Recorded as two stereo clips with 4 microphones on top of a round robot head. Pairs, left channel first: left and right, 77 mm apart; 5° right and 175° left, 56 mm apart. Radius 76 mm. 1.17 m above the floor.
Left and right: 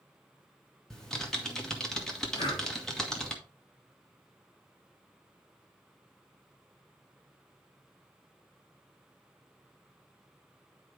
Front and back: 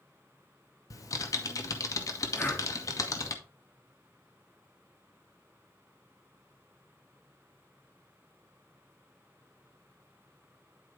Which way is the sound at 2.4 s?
50° left.